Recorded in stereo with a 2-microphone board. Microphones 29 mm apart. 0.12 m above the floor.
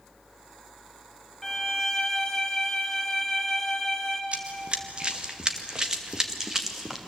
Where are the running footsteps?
50° right (ahead or behind), 3 m; by 7.0 s 15° right (ahead or behind), 3.5 m.